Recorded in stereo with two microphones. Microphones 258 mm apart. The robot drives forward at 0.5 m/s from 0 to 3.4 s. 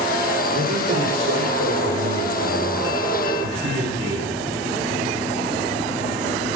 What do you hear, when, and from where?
0.5 s a man speaking: 80° right, 3 m; by 4.4 s 60° right (ahead or behind), 3.5 m